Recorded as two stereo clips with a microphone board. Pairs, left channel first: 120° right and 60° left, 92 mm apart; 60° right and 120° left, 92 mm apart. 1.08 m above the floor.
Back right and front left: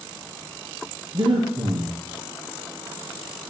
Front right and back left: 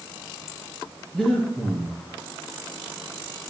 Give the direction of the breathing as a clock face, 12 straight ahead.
11 o'clock.